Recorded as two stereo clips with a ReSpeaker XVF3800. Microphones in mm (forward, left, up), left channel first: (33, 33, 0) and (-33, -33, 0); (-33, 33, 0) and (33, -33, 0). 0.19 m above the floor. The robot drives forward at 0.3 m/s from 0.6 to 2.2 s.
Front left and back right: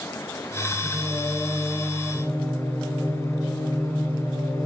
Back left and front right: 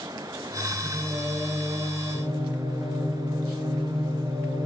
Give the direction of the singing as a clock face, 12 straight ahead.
1 o'clock.